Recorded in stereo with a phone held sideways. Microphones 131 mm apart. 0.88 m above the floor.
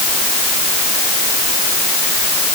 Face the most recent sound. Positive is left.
No sound to turn to.